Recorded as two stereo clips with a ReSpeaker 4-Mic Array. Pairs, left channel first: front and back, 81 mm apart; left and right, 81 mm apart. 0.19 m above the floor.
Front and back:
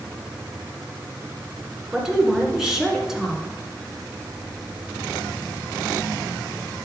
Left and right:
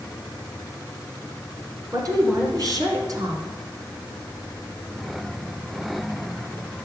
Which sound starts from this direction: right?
A woman speaking, at 1.9 s.